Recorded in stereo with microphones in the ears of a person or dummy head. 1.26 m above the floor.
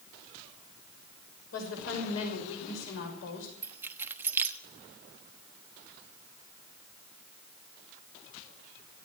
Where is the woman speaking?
75° left (ahead or behind), 6 m; by 3.5 s 85° left, 6 m.